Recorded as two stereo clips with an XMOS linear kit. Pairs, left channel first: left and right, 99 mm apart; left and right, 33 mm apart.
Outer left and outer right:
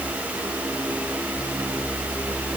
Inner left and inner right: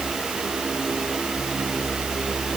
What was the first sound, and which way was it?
Only background noise.